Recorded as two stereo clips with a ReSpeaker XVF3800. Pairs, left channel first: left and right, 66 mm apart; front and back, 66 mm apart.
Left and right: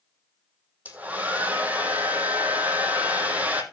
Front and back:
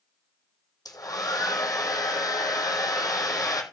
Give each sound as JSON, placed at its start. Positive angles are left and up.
{"t": 0.8, "sound": "a hair dryer", "azimuth_deg": -20, "distance_m": 2.5}